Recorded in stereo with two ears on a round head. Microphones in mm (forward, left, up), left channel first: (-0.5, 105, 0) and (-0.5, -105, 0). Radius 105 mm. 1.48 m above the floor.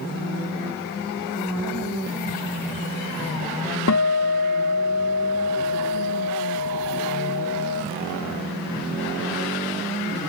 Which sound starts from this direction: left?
A guitar, at 3.9 s.